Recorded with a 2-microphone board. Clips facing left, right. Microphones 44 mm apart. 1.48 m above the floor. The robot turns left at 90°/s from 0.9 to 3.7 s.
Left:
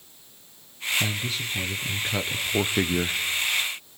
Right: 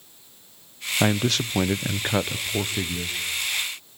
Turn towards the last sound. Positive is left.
turn(degrees=65)